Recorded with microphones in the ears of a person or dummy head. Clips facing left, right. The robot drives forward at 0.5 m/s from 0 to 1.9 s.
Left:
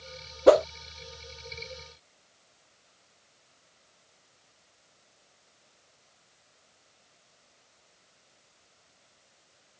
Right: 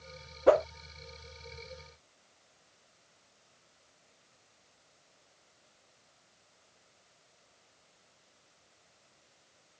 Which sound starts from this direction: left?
A whoosh, at 0.5 s.